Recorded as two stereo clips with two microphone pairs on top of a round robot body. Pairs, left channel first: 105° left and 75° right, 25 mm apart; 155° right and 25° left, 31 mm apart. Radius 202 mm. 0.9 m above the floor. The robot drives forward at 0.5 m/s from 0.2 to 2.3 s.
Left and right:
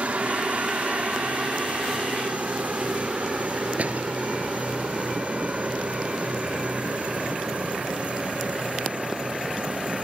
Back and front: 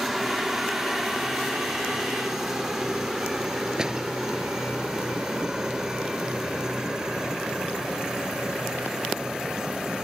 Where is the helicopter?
65° right; by 10.1 s 50° right.